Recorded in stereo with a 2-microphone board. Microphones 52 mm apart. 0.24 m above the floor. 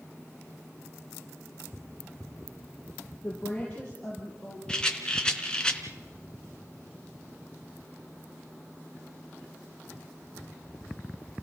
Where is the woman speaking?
20° left (ahead or behind), 6.5 m; by 4.6 s 15° left (ahead or behind), 5.5 m.